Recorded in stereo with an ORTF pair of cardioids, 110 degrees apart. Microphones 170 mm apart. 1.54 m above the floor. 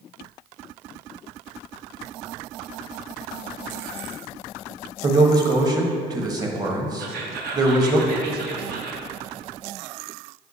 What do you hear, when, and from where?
5.0 s a man speaking: 20° right, 1.2 m
7.0 s whispering: 65° right, 1.5 m